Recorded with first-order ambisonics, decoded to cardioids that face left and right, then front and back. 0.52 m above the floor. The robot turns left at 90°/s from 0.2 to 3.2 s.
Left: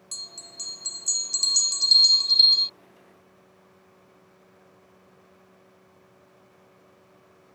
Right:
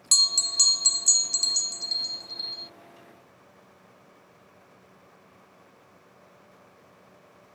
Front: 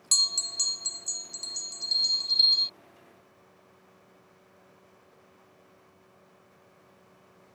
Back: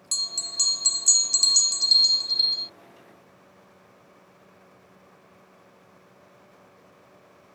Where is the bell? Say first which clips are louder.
Right 17 dB, front 2 dB; 75° right; by 2.7 s 60° left.